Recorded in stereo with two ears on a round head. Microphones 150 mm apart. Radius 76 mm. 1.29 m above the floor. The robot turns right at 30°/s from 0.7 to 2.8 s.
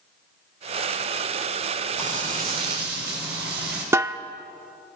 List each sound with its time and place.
2.0 s frying: 50° right (ahead or behind), 7.5 m; by 3.8 s 75° right (ahead or behind), 7.5 m
3.9 s a snare drum: 15° right (ahead or behind), 0.9 m